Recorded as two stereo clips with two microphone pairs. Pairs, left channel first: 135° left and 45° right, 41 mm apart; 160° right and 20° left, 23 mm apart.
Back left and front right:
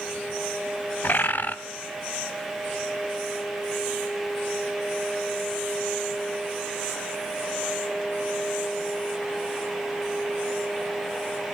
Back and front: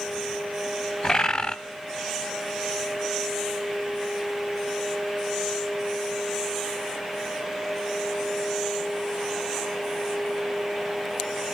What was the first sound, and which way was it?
A bird, 150° left.